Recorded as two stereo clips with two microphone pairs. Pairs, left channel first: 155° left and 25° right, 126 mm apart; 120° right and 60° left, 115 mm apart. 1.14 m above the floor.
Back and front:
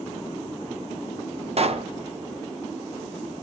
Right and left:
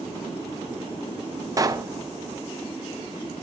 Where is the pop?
5° left, 0.5 m.